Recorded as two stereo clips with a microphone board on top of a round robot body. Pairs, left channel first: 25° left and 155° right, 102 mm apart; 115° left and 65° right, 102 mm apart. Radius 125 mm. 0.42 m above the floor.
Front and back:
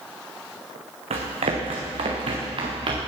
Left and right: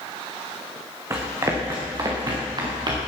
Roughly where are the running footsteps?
Behind right.